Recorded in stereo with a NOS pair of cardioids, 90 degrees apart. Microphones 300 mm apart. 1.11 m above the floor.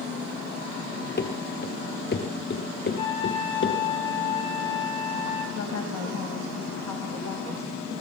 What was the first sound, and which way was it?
Running footsteps, 35° left.